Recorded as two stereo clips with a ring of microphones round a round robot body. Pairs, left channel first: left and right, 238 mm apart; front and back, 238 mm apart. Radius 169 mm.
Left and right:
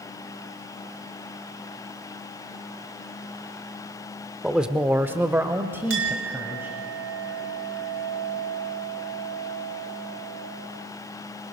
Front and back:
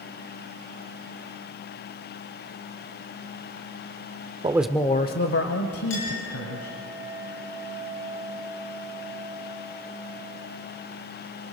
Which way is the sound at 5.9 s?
55° right.